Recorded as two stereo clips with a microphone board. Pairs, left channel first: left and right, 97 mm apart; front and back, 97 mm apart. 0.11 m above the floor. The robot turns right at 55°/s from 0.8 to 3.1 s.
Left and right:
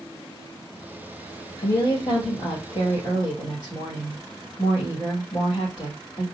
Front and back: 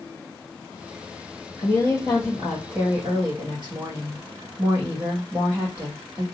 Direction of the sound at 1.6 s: 40° left.